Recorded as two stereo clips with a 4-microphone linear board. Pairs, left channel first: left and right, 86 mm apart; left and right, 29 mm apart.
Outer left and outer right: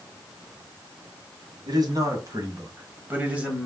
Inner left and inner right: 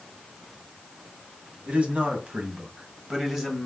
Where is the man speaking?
50° right (ahead or behind), 2 m; by 3.7 s 5° right (ahead or behind), 1.3 m.